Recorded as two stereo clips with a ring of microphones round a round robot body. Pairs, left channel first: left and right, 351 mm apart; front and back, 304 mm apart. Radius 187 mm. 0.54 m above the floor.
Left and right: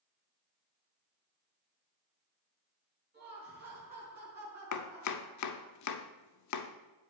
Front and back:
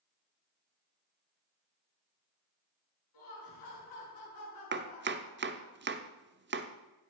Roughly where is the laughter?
Ahead right.